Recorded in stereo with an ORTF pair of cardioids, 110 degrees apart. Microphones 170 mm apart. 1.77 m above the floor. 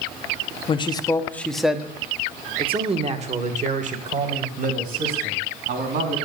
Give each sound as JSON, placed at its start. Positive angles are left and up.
{"t": 0.7, "sound": "a man speaking", "azimuth_deg": 35, "distance_m": 1.4}